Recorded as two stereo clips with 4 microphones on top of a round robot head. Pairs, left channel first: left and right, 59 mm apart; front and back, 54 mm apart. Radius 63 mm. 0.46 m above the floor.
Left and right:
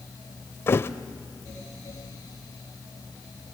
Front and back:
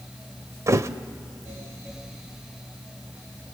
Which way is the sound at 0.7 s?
140° left.